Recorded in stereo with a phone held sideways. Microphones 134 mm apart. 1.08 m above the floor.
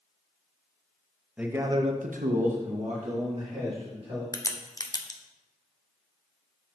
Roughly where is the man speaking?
Centre.